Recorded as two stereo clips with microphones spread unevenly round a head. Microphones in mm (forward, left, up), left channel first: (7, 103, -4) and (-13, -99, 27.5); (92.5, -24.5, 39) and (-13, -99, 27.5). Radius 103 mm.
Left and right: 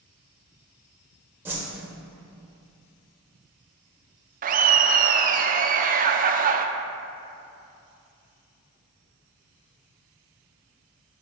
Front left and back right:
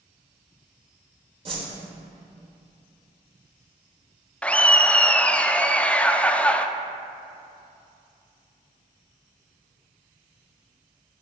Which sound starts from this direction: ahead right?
Laughter, at 4.4 s.